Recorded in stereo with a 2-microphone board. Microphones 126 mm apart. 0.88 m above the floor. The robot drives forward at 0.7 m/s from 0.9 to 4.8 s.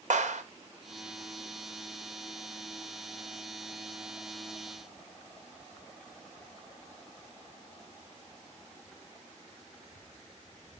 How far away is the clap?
About 2 m.